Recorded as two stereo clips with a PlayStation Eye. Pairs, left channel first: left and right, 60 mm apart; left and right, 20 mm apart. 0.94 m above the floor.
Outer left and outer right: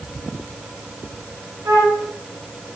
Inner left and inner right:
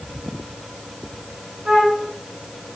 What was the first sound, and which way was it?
A flute, 65° right (ahead or behind).